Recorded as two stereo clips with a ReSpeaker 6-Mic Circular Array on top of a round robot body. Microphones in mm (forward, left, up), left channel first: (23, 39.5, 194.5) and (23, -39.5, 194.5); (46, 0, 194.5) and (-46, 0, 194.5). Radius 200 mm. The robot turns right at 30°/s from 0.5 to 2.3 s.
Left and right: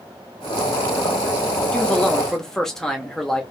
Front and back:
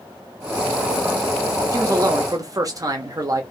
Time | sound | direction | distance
1.7 | a man speaking | 155° left | 1.0 m